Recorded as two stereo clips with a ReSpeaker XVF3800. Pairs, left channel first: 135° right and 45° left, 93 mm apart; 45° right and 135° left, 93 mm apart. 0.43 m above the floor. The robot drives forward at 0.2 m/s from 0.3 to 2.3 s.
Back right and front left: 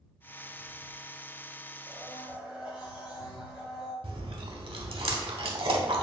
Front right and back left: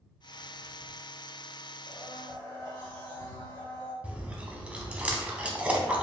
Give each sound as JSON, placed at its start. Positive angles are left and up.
{"t": 1.9, "sound": "a blender", "azimuth_deg": 115, "distance_m": 1.9}
{"t": 4.0, "sound": "chewing", "azimuth_deg": 60, "distance_m": 0.6}